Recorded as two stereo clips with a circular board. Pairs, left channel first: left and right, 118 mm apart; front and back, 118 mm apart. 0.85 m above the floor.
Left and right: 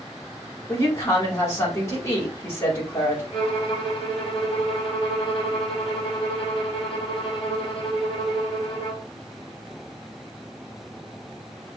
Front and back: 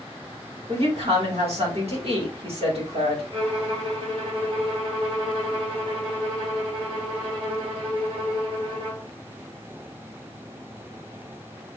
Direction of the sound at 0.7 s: 155° left.